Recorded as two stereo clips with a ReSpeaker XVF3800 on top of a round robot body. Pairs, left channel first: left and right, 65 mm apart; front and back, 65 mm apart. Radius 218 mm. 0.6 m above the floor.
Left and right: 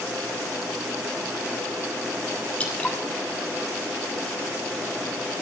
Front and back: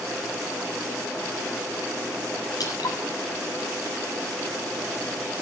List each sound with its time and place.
2.6 s dripping: 25° left, 5.5 m